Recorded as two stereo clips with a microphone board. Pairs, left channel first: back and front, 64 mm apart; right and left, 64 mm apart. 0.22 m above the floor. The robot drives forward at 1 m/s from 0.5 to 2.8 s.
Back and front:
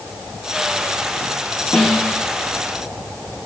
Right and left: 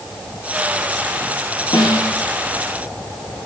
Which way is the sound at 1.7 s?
100° right.